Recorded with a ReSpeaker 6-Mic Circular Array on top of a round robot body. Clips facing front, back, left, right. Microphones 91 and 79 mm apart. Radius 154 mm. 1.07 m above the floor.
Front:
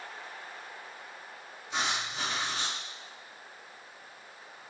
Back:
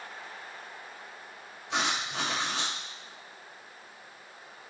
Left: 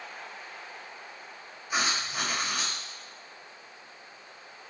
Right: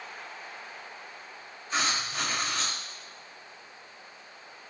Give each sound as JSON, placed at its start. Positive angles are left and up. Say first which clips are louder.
{"t": 1.7, "sound": "writing", "louder": "back 2 dB, even", "azimuth_deg": 170, "distance_m": 0.9}